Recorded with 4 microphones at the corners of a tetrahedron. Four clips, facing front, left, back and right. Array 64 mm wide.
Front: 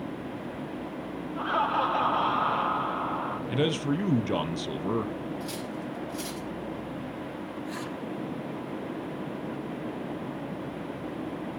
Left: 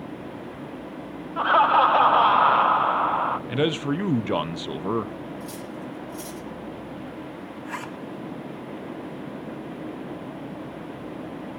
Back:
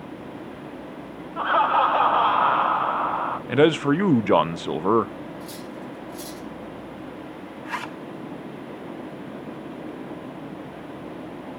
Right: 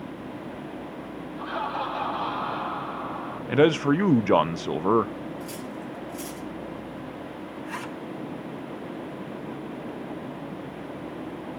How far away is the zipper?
About 2.5 m.